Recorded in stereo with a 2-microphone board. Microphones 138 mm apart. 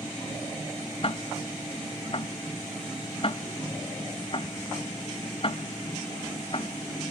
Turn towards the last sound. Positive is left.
turn(degrees=40)  # may be behind; listen again after turning